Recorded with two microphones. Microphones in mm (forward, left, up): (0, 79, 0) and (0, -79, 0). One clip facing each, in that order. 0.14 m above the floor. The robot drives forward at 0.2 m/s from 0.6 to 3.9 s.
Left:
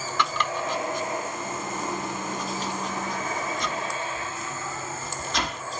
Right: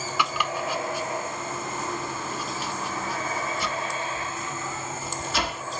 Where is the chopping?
10° right (ahead or behind), 1.0 m; by 5.6 s 5° right (ahead or behind), 1.4 m.